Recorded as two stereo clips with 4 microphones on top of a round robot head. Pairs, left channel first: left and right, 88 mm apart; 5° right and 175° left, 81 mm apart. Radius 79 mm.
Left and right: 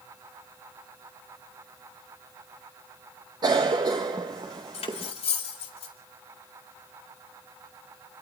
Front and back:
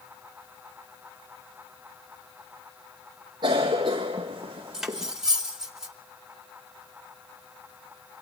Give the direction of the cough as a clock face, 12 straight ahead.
4 o'clock.